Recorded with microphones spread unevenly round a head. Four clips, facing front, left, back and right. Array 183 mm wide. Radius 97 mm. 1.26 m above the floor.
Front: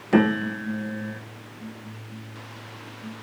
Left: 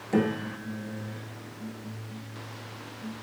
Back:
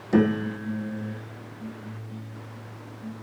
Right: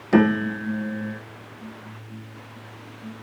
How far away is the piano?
About 1.4 m.